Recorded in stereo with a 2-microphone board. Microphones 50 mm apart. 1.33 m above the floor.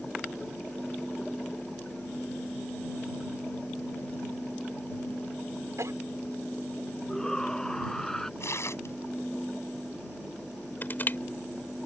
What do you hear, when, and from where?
5.8 s a cough: 80° right
7.1 s a shout: 10° left (ahead or behind)
8.4 s tearing paper: 65° left (ahead or behind)
10.8 s crushing: 45° left (ahead or behind)